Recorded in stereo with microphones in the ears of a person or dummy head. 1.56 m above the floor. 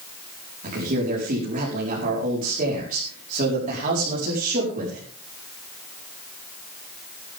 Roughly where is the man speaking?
Right.